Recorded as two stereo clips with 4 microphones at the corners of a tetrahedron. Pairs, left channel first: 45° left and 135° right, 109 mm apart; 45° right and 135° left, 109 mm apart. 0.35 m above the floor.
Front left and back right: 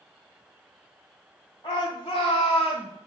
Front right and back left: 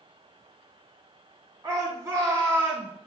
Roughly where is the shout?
Left.